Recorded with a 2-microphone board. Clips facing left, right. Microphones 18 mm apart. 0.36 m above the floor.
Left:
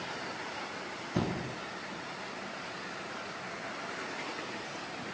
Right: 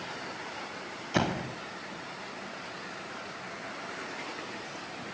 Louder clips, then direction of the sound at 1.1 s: Right 5 dB; 55° right (ahead or behind).